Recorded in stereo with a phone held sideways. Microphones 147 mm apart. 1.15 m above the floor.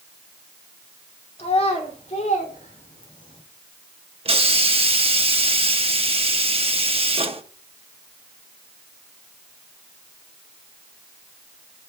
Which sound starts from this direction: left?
A child speaking, at 1.4 s.